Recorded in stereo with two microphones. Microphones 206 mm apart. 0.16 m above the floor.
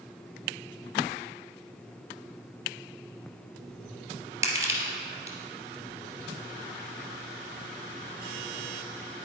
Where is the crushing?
15° right (ahead or behind), 2.0 m.